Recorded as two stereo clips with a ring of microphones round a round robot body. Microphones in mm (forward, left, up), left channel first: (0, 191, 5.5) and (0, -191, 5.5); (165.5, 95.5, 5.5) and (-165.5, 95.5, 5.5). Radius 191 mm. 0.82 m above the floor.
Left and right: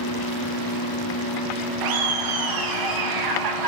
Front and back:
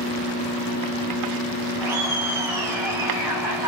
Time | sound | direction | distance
1.8 | laughter | 100° right | 0.5 m